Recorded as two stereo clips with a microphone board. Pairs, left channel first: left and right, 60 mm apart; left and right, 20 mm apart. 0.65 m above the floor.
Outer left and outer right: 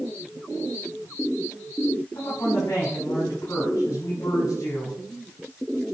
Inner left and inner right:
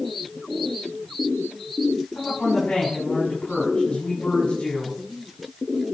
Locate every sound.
2.1 s a woman speaking: 80° left, 6 m